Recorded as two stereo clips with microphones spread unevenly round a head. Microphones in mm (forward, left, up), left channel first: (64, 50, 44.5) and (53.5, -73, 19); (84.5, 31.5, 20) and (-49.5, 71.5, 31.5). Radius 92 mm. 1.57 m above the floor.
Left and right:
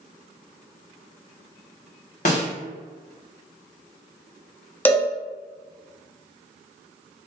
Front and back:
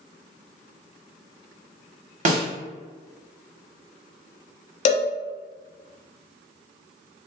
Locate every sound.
2.2 s a snare drum: 135° left, 1.0 m
4.8 s a cowbell: 15° left, 0.5 m